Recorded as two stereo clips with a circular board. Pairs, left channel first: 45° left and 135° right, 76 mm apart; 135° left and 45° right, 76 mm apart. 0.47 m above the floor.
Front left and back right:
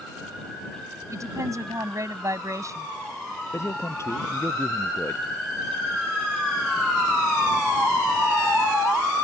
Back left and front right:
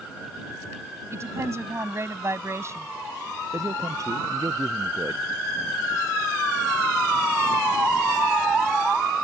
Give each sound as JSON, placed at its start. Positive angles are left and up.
{"t": 1.1, "sound": "a woman speaking", "azimuth_deg": -95}
{"t": 3.5, "sound": "a man speaking", "azimuth_deg": -5}